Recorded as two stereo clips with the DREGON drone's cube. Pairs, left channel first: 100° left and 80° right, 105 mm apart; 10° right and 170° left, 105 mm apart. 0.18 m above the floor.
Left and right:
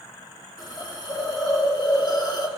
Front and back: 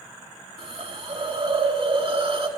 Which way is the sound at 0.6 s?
145° left.